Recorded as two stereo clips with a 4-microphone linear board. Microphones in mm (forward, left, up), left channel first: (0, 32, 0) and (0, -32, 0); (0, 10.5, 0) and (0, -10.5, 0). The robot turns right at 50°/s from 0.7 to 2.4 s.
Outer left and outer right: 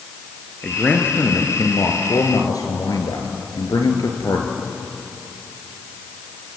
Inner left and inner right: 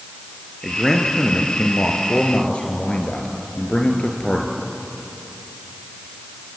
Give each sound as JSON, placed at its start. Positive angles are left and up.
{"t": 0.6, "sound": "a man speaking", "azimuth_deg": 10, "distance_m": 3.5}